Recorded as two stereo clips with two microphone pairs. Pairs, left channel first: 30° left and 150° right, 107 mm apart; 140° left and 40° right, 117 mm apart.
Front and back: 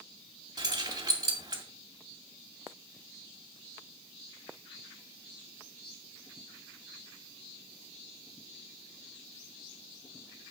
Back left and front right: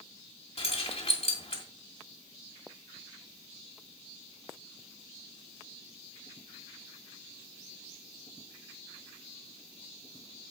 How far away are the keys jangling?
About 2 m.